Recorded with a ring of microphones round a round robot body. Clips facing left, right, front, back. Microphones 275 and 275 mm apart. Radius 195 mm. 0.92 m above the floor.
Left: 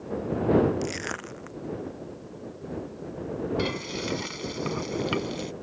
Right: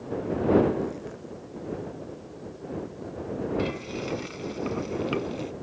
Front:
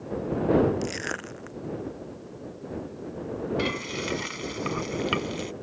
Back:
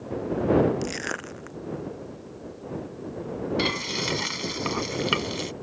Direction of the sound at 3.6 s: 145° left.